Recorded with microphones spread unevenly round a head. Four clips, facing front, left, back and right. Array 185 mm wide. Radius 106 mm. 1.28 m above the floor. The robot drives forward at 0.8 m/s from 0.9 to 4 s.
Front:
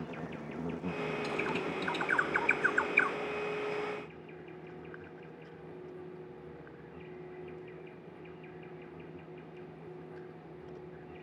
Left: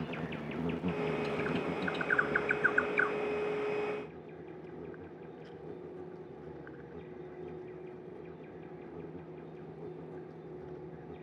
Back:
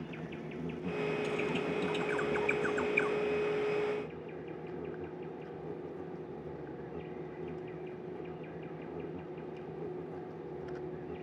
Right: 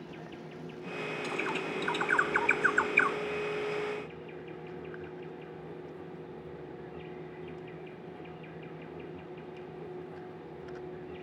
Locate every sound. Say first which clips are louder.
0.0 s an insect: left 5 dB, front 1 dB; 45° left; by 11.2 s 170° left
1.2 s a bird: left 1 dB, back 1 dB; 40° right; by 3.2 s 45° right